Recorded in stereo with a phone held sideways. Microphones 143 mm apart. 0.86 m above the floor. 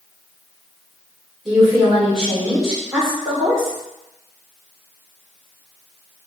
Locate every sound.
1.4 s a woman speaking: centre (ahead or behind), 2 m